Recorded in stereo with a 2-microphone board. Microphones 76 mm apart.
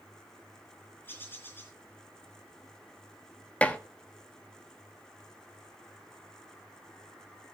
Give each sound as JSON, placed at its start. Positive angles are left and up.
{"t": 1.0, "sound": "a bird", "side_deg": 30, "distance_m": 3.5}
{"t": 3.6, "sound": "dishes clattering", "side_deg": 20, "distance_m": 1.0}